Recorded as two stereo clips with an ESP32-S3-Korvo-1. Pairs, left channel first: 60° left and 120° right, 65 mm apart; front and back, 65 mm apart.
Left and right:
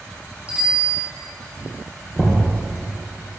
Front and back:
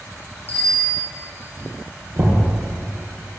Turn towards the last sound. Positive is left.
turn(degrees=145)